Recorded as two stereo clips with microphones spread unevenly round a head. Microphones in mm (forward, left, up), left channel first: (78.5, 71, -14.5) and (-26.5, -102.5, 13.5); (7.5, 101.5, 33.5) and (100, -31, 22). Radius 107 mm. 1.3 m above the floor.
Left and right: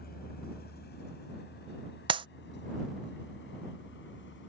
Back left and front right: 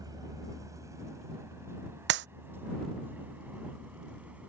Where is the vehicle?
15° left; by 4.5 s 25° left.